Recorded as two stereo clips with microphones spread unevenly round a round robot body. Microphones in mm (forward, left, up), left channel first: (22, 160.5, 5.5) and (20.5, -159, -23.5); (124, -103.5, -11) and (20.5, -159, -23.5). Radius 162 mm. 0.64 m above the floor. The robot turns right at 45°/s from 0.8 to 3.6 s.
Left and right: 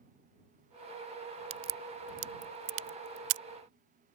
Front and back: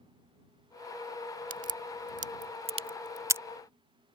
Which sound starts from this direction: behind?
A crack, at 1.5 s.